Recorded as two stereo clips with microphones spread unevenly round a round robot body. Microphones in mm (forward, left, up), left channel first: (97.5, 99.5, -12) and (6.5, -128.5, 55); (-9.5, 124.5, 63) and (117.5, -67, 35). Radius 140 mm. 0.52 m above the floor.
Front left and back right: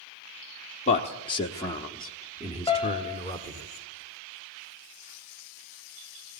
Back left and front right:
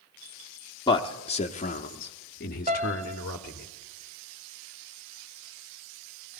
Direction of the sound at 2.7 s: Straight ahead.